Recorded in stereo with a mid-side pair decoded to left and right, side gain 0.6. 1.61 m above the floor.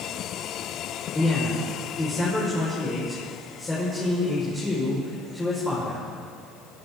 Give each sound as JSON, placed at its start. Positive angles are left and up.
{"t": 1.1, "sound": "a man speaking", "azimuth_deg": 15, "distance_m": 5.5}